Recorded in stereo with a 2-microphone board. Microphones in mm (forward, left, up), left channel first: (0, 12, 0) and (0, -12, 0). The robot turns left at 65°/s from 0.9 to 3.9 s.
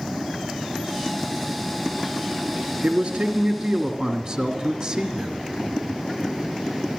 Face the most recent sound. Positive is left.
turn(degrees=-150)